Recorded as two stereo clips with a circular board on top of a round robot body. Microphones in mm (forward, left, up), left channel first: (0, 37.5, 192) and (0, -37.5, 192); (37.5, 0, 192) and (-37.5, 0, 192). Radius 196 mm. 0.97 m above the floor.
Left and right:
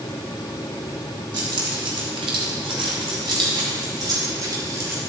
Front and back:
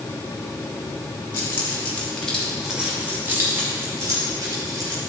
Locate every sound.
1.3 s keys jangling: 60° right, 2 m; by 5.0 s 145° right, 3 m